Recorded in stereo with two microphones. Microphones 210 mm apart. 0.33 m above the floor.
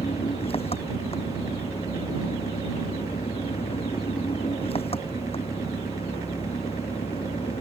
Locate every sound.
0.0 s an engine running: 25° left (ahead or behind)